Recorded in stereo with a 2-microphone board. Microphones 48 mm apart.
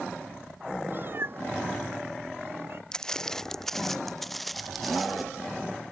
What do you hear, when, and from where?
0.9 s a cat meowing: 45° right (ahead or behind); by 2.8 s 55° right (ahead or behind)
2.9 s footsteps: 15° left (ahead or behind); by 5.2 s centre (ahead or behind)